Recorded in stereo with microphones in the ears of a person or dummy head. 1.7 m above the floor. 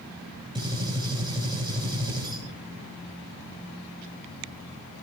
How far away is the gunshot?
About 5 m.